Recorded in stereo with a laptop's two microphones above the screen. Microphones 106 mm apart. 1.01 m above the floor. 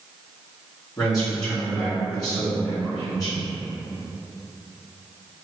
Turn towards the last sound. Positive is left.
turn(degrees=35)  # may be behind; listen again after turning